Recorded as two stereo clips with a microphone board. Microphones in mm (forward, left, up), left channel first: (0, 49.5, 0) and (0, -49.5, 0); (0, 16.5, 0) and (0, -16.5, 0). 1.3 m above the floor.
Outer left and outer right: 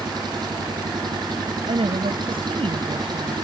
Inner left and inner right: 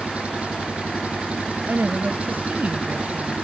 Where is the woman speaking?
70° right (ahead or behind).